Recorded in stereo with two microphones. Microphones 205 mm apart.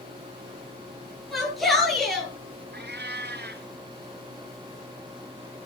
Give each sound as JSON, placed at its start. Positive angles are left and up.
{"t": 1.3, "sound": "a shout", "side_deg": 0, "distance_m": 7.5}
{"t": 2.7, "sound": "a cat meowing", "side_deg": -55, "distance_m": 1.2}